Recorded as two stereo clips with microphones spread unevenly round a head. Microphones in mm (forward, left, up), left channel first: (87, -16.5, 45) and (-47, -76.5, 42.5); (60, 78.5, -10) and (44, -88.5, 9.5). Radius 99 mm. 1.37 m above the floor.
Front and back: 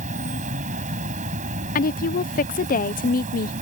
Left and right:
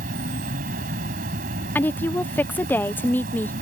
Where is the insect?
125° right.